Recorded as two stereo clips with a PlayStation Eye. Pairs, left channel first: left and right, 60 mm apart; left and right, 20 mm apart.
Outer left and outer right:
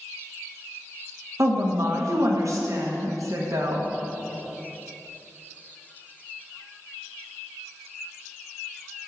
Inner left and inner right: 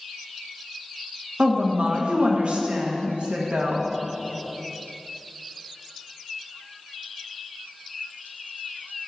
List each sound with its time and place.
1.4 s a woman speaking: 60° right (ahead or behind), 1.0 m